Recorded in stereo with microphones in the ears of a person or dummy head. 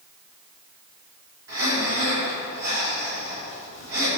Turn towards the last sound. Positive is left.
turn(degrees=-75)  # may be behind; listen again after turning